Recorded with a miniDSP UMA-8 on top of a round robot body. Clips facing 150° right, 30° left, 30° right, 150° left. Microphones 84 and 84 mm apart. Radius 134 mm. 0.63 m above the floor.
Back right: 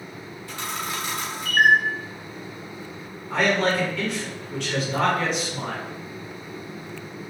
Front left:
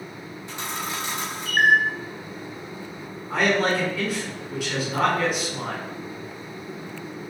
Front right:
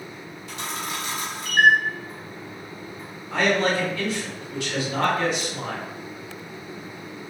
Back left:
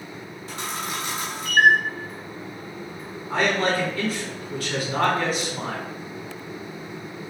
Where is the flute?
No flute in this recording.